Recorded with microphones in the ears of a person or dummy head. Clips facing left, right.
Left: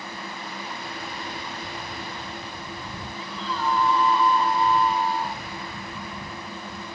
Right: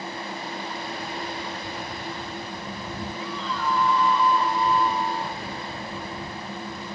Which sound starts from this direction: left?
A scream, at 3.2 s.